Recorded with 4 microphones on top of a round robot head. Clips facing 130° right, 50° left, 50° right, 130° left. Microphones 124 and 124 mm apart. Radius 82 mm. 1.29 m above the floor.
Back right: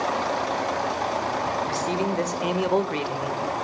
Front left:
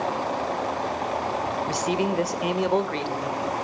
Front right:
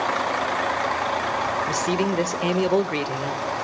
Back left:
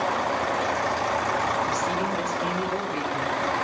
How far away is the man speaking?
About 1.5 m.